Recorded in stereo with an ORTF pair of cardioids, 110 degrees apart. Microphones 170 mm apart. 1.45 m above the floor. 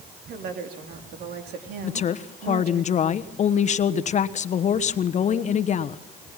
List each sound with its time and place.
0.3 s a woman speaking: 65° right, 3.5 m
1.8 s a woman speaking: 45° left, 1.2 m